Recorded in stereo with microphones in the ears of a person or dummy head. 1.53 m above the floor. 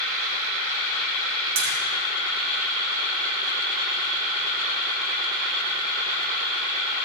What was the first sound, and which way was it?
A splash, 70° right (ahead or behind).